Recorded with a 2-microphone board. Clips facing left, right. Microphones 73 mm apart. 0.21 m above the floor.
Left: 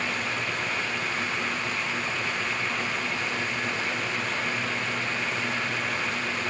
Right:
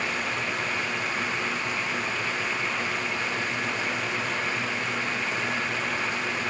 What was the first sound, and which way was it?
Only background noise.